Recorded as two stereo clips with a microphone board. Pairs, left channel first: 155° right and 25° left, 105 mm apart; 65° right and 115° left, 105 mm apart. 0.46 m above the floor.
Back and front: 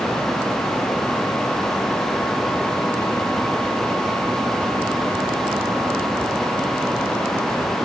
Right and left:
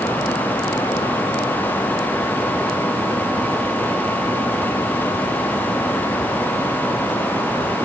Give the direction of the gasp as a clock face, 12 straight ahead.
No gasp in this recording.